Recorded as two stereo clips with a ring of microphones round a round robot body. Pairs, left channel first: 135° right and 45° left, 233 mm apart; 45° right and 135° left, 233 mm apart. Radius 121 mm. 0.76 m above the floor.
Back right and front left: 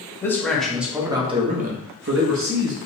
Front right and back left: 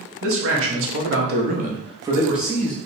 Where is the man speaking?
145° left, 1.1 m; by 2.8 s 40° left, 1.0 m.